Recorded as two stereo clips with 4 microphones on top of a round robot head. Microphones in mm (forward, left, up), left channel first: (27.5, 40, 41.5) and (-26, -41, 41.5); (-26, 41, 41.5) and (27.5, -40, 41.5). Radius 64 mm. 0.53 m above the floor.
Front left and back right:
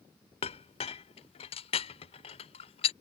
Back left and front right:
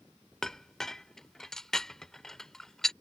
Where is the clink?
40° left.